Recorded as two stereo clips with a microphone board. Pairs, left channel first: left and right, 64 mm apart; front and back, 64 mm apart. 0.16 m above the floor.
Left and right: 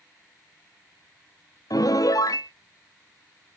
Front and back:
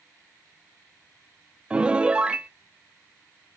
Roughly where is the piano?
Left.